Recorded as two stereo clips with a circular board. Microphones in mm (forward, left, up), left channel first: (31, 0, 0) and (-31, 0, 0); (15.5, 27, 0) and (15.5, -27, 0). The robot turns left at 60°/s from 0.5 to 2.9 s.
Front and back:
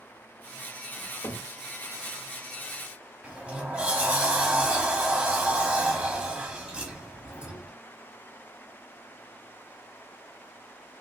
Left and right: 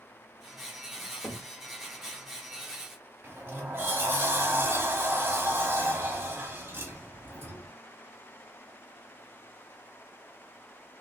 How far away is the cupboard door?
About 2 m.